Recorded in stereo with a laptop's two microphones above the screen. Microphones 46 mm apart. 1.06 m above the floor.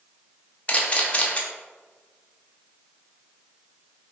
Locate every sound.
0.7 s a camera shutter: 30° left (ahead or behind), 0.6 m